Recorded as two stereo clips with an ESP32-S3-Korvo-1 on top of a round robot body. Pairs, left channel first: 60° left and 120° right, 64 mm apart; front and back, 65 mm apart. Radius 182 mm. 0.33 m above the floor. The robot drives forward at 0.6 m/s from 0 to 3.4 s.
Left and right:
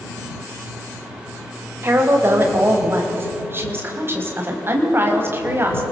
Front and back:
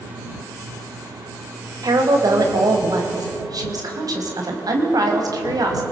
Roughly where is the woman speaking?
Behind.